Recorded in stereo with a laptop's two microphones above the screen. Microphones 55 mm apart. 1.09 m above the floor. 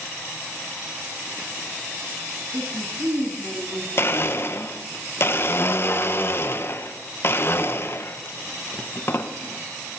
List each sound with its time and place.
2.5 s a woman speaking: 35° right (ahead or behind), 9.5 m
4.0 s a blender: 45° left (ahead or behind), 1.1 m